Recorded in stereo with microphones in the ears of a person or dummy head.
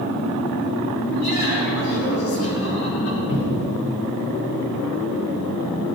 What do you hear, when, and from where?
1.0 s laughter: 80° left, 5 m; by 3.2 s 65° left (ahead or behind), 4.5 m
3.3 s a cupboard door: 55° left (ahead or behind), 2.5 m